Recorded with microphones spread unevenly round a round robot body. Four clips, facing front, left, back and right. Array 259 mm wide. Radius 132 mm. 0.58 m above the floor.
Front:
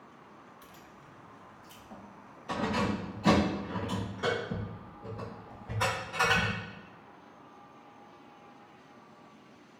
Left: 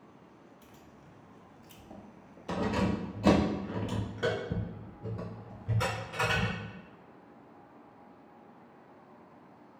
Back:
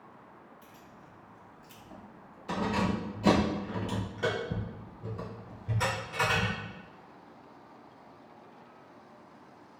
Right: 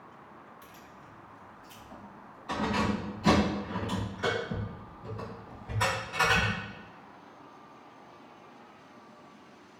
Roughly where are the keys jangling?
Ahead.